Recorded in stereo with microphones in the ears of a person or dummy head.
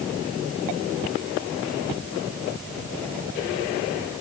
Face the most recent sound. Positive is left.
No sound to turn to.